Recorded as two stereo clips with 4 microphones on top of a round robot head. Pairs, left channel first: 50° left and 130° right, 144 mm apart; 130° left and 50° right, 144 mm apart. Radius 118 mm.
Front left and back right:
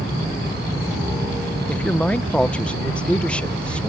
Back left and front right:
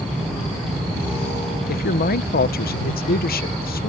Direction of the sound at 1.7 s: 130° left.